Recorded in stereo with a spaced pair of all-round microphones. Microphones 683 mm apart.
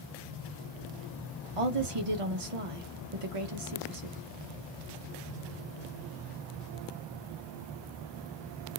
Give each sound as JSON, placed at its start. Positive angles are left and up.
{"t": 1.6, "sound": "a woman speaking", "side_deg": -50, "distance_m": 0.8}